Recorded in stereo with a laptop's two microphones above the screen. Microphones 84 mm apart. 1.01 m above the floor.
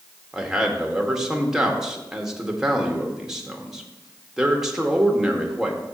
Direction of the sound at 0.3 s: 5° right (ahead or behind).